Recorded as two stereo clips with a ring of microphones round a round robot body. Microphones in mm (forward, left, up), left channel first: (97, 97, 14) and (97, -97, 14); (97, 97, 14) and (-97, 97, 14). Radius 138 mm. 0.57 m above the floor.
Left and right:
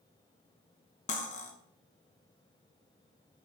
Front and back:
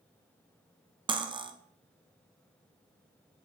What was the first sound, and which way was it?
Cutlery clinking, 125° left.